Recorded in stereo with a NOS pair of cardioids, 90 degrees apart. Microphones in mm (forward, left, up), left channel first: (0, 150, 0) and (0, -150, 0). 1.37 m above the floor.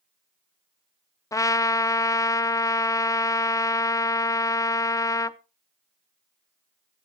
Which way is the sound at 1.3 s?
10° left.